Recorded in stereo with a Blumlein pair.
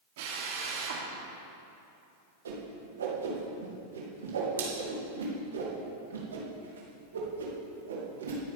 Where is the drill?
50° right, 3 m.